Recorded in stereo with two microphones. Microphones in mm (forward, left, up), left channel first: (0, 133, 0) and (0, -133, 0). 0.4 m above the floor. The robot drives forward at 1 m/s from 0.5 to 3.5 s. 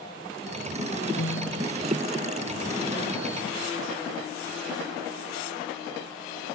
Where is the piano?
60° left (ahead or behind); by 1.7 s 65° left (ahead or behind).